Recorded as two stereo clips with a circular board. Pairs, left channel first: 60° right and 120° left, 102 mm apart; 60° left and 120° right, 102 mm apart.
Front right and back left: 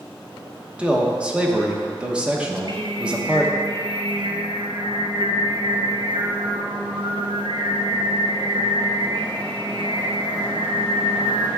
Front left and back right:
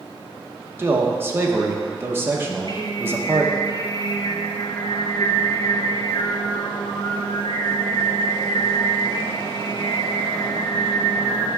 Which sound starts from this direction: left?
Singing, at 2.5 s.